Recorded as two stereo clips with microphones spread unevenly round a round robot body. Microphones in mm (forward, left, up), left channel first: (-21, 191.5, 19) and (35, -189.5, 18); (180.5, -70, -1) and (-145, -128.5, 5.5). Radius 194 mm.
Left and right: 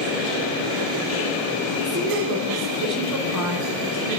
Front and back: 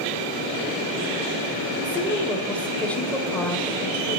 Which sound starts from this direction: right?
A woman speaking, at 1.8 s.